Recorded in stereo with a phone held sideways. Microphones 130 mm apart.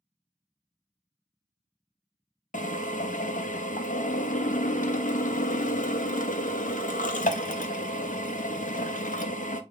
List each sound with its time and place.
2.5 s a drill: 80° left, 0.7 m